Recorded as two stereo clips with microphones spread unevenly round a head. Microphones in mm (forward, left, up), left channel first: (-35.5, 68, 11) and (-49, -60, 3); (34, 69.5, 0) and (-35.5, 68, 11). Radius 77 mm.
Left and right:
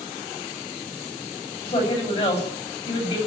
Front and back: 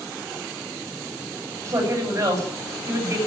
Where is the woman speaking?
130° left, 9 m.